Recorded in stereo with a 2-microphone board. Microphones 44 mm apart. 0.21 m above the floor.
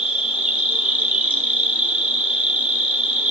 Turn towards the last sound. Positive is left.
turn(degrees=-30)  # may be behind; listen again after turning